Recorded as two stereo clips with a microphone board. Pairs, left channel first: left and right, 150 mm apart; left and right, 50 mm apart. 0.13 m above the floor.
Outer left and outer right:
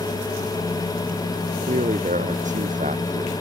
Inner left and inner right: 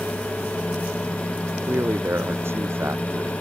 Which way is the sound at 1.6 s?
55° right (ahead or behind).